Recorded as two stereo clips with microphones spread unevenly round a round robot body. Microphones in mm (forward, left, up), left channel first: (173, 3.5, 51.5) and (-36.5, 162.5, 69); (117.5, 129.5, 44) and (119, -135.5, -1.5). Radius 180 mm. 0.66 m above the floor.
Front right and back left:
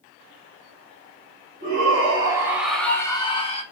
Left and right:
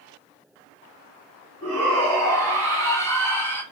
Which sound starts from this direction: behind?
A shout, at 1.6 s.